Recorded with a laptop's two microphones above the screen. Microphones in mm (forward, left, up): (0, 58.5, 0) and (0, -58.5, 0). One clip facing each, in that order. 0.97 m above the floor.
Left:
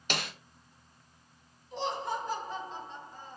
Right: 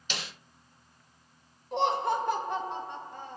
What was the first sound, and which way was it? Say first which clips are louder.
A snare drum: left 5 dB; 55° left (ahead or behind).